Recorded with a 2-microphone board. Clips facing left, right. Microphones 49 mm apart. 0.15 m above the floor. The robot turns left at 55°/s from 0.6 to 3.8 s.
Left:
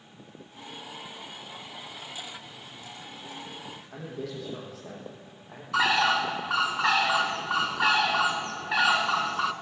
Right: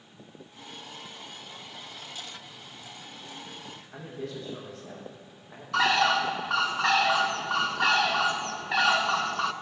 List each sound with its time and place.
3.9 s a man speaking: 75° left (ahead or behind), 5 m
5.7 s a bird: 5° left (ahead or behind), 0.5 m